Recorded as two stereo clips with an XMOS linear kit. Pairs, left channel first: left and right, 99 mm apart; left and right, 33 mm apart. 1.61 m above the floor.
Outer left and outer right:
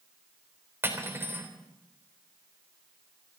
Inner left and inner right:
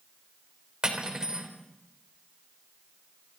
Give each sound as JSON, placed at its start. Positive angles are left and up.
{"t": 0.8, "sound": "cutlery clinking", "side_deg": -25, "distance_m": 3.5}